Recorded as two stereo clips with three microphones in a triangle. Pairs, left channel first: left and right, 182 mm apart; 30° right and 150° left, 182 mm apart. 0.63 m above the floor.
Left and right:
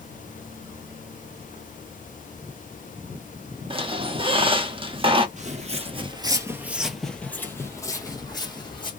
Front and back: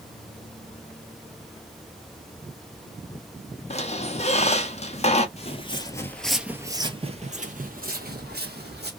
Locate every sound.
3.7 s a squeak: 50° right, 0.6 m
5.4 s footsteps: 65° right, 0.8 m; by 8.9 s 150° left, 1.4 m